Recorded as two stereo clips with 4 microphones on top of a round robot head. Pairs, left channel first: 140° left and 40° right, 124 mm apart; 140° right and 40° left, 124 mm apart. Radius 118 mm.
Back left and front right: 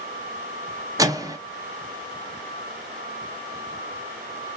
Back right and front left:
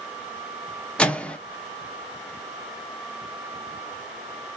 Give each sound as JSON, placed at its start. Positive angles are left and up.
{"t": 1.0, "sound": "a microwave", "azimuth_deg": -65, "distance_m": 0.6}